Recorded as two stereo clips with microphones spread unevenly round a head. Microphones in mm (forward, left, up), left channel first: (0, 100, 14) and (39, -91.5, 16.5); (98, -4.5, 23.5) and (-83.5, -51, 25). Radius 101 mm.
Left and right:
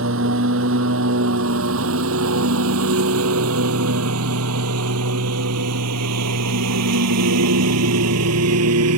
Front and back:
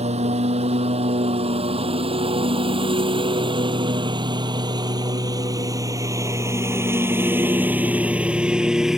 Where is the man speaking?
I don't hear a man speaking.